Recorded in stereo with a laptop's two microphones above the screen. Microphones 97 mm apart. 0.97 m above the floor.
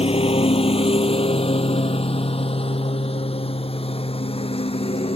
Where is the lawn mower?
85° left.